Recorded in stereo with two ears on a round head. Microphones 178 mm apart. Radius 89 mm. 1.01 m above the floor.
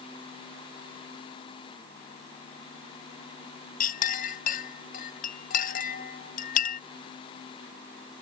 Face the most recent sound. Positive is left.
turn(degrees=45)  # may be behind; listen again after turning